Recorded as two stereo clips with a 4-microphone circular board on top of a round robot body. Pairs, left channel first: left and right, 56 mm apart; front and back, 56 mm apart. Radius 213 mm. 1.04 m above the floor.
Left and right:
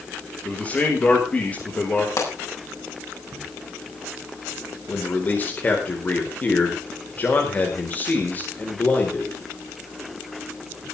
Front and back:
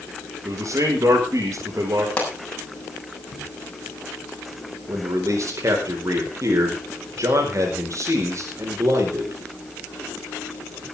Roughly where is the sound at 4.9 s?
Behind left.